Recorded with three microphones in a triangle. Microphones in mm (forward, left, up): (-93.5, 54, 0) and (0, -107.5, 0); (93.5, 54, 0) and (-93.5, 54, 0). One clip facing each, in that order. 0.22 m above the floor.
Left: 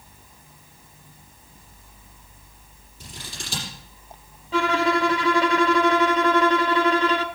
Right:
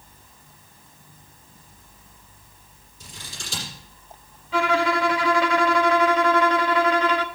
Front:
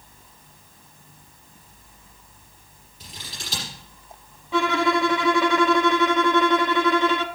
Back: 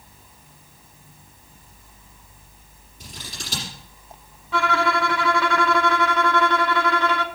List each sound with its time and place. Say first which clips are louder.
3.0 s scissors: left 3 dB, back 2 dB; 140° left, 6 m
4.5 s a violin: even, front 2 dB; 70° left, 0.7 m